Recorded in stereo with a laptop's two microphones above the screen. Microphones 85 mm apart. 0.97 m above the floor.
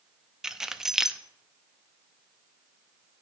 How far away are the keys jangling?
About 0.6 m.